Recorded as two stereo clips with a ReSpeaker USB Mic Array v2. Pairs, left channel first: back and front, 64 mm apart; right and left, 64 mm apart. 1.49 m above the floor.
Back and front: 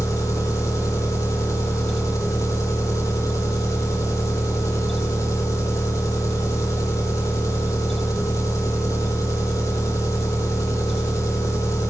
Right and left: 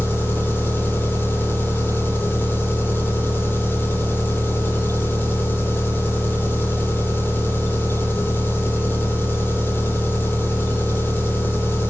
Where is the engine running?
145° right, 3 m.